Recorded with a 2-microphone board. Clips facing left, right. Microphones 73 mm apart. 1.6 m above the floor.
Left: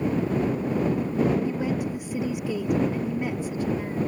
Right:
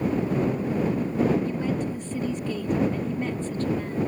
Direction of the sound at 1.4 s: 15° left (ahead or behind).